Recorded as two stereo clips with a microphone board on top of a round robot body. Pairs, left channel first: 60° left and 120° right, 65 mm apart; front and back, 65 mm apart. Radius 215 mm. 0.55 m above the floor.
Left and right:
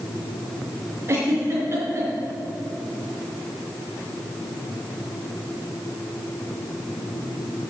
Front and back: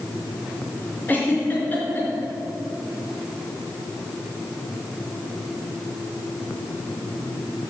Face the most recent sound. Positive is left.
turn(degrees=-65)